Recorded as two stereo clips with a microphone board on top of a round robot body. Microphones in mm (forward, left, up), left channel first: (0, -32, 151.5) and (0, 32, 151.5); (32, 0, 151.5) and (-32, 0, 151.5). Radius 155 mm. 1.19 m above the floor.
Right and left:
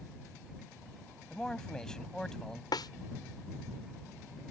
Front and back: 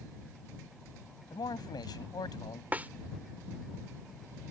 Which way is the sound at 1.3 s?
10° right.